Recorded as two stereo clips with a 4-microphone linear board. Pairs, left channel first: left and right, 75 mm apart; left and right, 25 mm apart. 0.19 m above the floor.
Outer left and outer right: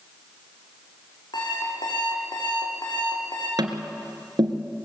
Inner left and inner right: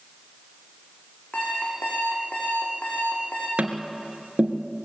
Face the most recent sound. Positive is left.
turn(degrees=-65)  # may be behind; listen again after turning